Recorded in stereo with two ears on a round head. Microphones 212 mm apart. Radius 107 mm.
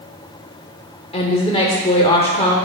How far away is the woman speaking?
About 1.0 m.